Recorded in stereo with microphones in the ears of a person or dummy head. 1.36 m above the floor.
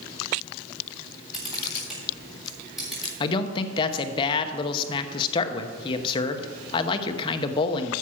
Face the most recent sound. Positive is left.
turn(degrees=25)  # may be behind; listen again after turning